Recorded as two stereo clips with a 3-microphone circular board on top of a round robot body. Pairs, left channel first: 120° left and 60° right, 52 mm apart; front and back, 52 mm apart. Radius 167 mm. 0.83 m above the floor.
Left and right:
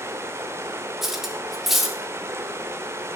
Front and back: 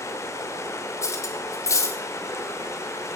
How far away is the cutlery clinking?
About 1.7 m.